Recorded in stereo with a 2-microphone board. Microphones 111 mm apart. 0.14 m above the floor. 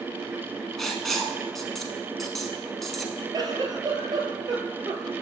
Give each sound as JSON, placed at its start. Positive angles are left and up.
{"t": 0.8, "sound": "writing", "side_deg": 0, "distance_m": 0.8}
{"t": 3.3, "sound": "a giggle", "side_deg": -40, "distance_m": 1.0}